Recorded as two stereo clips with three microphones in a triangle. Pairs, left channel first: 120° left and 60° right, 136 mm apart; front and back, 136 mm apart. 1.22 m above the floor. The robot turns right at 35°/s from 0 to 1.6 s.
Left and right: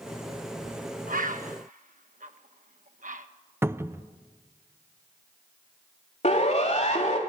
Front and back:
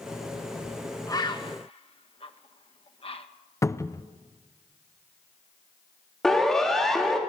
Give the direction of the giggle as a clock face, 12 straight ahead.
I don't hear a giggle.